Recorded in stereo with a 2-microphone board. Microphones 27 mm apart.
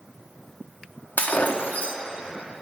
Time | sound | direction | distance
1.2 | breaking glass | 70° left (ahead or behind) | 1.1 m